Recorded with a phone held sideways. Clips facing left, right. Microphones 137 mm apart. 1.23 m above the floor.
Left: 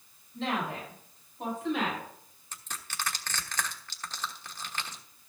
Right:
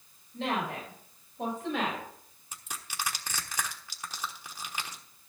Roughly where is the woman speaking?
Right.